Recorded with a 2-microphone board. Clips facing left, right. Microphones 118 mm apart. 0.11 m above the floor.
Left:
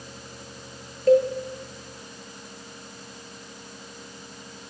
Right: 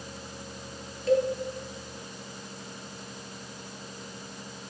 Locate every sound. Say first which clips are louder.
1.1 s a cowbell: left 6 dB; 45° left (ahead or behind), 1.1 m